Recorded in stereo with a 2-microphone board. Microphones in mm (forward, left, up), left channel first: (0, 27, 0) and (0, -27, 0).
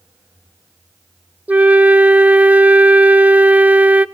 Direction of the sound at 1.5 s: 25° right (ahead or behind).